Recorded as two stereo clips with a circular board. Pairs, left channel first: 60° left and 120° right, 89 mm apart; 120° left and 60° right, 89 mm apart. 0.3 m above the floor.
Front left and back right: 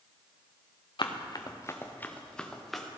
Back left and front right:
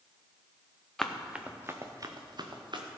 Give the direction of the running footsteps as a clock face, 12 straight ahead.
11 o'clock.